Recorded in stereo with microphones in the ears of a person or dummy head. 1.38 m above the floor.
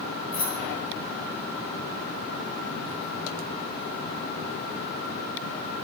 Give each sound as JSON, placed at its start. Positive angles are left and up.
{"t": 0.3, "sound": "keys jangling", "side_deg": 45, "distance_m": 1.6}